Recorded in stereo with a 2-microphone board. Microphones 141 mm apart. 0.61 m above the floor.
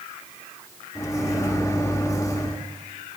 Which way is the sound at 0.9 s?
20° left (ahead or behind).